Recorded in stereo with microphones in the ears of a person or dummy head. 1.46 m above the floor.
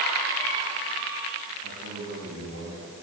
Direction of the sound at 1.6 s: 70° right (ahead or behind).